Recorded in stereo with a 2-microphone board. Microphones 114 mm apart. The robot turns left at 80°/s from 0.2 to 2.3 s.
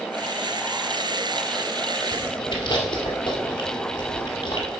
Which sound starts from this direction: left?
Chewing, at 2.1 s.